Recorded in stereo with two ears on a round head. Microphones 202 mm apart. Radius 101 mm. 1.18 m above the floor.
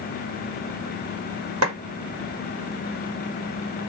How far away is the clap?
About 1.4 m.